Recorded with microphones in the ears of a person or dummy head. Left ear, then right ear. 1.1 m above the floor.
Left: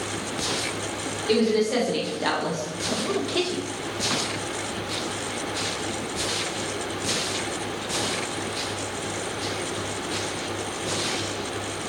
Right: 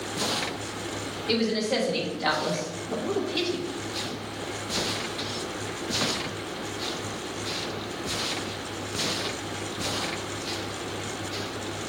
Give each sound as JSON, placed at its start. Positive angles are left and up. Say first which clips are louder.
{"t": 1.3, "sound": "a woman speaking", "louder": "left 4 dB", "side_deg": -5, "distance_m": 2.0}